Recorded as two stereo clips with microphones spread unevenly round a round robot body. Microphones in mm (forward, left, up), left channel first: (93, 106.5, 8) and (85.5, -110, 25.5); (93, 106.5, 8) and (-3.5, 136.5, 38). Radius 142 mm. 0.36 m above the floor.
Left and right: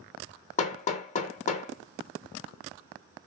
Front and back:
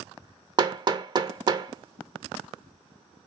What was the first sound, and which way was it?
Hammering, 110° left.